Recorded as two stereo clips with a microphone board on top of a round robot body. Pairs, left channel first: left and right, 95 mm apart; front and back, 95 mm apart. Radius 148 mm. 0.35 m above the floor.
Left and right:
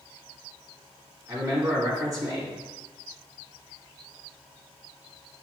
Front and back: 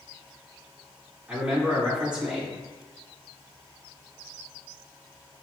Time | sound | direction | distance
1.3 | a man speaking | 105° right | 1.7 m